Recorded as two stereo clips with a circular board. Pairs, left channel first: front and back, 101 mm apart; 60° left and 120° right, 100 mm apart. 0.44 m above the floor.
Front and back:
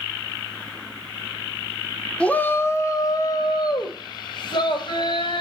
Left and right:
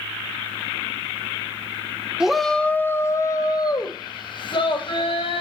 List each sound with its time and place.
2.2 s a shout: 55° right, 0.9 m; by 5.4 s 35° left, 2.5 m